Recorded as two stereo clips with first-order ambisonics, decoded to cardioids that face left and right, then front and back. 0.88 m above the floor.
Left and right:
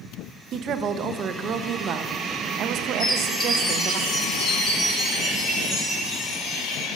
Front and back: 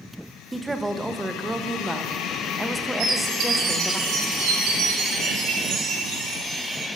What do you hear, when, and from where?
0.5 s a woman speaking: 100° right, 0.5 m
3.0 s a chime: 165° left, 4.5 m